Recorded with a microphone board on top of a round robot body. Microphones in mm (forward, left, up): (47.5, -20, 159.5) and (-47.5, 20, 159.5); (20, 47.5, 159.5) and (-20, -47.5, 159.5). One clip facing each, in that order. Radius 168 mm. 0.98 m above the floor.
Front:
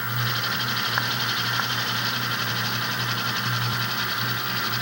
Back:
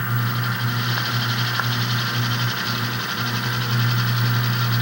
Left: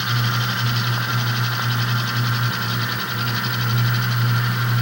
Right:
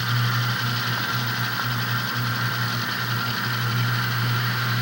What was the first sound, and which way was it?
Only background noise.